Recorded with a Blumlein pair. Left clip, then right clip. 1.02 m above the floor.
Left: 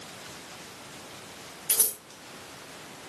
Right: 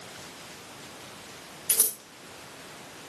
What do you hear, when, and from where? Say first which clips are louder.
1.7 s scissors: even; 5° right, 3 m